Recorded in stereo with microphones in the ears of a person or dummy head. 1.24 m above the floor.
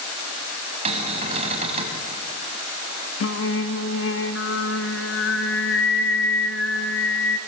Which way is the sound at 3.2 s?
70° left (ahead or behind).